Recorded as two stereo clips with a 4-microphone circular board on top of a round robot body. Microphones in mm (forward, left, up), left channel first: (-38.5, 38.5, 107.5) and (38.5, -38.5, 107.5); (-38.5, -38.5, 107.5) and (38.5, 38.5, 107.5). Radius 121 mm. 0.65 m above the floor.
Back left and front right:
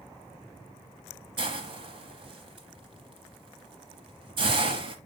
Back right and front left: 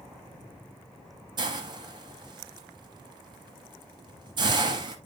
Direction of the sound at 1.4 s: 5° right.